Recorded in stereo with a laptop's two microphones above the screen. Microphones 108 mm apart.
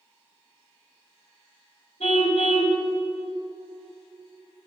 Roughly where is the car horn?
Left.